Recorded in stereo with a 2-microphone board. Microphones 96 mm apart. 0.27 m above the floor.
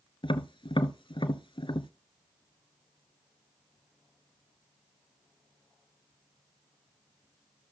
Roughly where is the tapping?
Left.